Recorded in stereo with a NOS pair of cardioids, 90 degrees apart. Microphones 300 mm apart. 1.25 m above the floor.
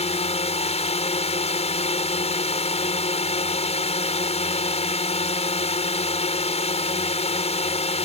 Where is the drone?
20° left.